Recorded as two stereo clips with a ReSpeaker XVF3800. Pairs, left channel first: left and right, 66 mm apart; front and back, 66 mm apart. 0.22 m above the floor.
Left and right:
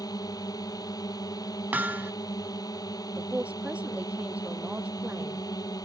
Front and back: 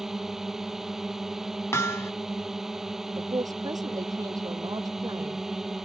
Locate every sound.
0.0 s a drone: 95° left
1.7 s hammering: 35° right
3.2 s a man speaking: 160° right